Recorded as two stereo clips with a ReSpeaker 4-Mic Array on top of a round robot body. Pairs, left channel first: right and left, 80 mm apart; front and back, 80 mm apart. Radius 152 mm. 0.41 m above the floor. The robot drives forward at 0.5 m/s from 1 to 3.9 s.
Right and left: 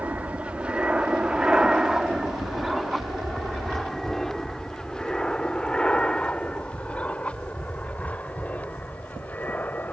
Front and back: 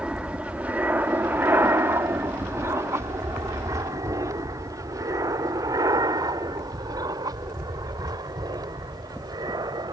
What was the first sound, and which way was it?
An aircraft, 125° left.